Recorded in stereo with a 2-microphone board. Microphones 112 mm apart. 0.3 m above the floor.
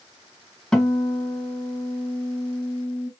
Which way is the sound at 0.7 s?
5° left (ahead or behind).